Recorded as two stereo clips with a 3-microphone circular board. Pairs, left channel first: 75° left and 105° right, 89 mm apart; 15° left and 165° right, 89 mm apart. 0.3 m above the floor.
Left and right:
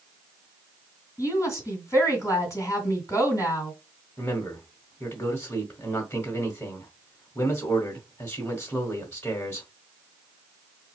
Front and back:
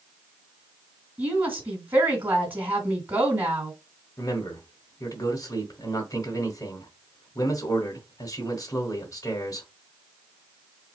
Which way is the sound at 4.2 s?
30° left.